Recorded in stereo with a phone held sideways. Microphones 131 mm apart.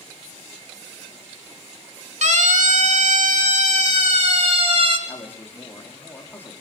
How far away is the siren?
About 3 m.